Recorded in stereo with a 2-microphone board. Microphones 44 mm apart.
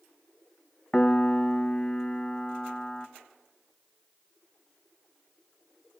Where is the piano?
15° left (ahead or behind), 1.0 m.